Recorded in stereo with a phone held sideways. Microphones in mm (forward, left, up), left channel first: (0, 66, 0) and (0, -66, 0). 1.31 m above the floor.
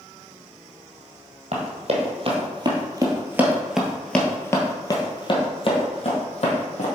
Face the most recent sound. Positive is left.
turn(degrees=55)  # may be behind; listen again after turning